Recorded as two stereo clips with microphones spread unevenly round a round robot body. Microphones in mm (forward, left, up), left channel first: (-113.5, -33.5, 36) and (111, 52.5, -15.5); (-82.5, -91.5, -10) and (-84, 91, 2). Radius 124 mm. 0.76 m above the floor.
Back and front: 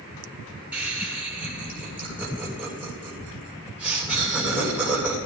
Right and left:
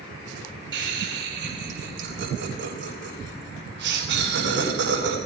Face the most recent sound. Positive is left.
turn(degrees=105)